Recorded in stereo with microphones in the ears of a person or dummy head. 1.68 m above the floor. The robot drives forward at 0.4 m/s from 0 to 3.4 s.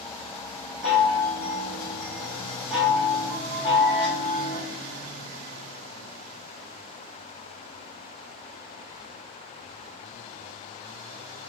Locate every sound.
0.8 s a chime: 5° left (ahead or behind), 2.5 m; by 4.6 s centre (ahead or behind), 3.5 m